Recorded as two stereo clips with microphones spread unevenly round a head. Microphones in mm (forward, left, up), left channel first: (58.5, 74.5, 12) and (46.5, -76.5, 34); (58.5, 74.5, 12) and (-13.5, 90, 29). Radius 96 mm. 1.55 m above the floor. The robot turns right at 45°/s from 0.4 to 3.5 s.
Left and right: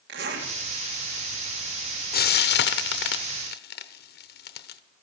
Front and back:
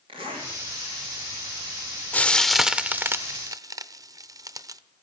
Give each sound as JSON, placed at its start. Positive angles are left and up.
{"t": 0.1, "sound": "a zipper", "azimuth_deg": -135, "distance_m": 2.0}
{"t": 2.1, "sound": "frying", "azimuth_deg": 60, "distance_m": 0.8}